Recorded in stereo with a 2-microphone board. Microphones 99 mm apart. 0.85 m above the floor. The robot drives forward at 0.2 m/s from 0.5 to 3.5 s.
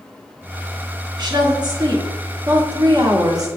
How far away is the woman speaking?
About 1.6 m.